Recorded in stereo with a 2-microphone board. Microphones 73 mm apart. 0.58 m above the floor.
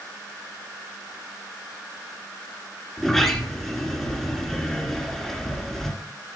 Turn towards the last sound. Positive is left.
turn(degrees=5)  # may be behind; listen again after turning